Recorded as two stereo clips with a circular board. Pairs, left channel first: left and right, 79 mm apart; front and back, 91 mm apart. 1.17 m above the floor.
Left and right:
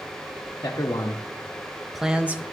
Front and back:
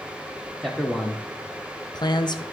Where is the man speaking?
85° left, 0.7 m; by 2.4 s 25° right, 0.7 m.